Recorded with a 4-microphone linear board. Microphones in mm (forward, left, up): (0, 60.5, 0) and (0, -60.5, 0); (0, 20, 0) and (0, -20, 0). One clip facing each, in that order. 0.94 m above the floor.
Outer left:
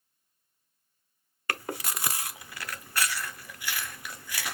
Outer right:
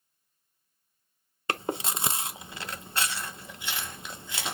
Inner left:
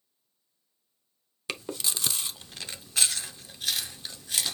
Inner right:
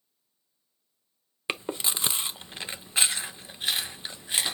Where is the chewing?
25° right (ahead or behind), 0.6 m.